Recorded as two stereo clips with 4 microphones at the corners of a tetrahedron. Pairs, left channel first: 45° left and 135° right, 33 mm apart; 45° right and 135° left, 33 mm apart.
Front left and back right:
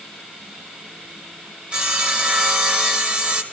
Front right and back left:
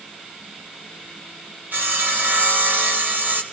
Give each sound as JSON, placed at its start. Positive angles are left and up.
{"t": 1.7, "sound": "sawing", "azimuth_deg": 160, "distance_m": 1.6}